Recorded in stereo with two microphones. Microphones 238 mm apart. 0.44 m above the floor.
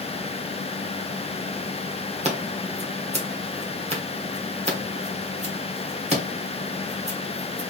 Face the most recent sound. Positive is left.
turn(degrees=-30)  # may be behind; listen again after turning